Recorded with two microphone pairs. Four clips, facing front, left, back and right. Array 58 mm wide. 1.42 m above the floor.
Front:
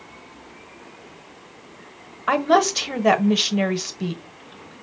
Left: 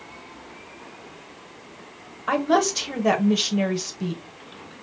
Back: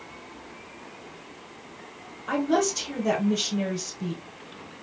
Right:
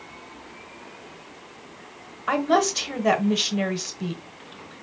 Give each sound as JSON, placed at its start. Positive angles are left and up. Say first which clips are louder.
{"t": 2.3, "sound": "a woman speaking", "louder": "even, front 6 dB", "azimuth_deg": -10, "distance_m": 0.9}